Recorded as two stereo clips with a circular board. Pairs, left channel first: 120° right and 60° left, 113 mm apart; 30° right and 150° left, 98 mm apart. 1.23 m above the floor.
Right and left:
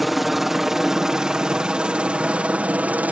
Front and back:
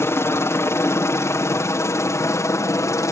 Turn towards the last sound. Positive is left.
turn(degrees=-5)